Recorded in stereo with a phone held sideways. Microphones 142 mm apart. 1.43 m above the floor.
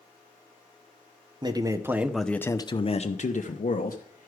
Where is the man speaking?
30° right (ahead or behind), 0.8 m; by 4.3 s 80° left, 1.1 m.